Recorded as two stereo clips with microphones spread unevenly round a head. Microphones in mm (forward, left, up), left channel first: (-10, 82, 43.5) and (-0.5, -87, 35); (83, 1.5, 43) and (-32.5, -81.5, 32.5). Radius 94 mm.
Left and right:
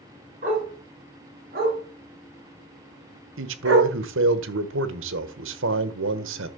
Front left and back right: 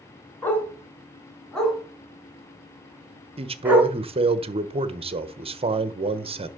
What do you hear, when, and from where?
0.4 s a dog barking: 35° right, 4 m; by 3.9 s 65° right, 5 m
3.4 s a man speaking: 95° right, 1.2 m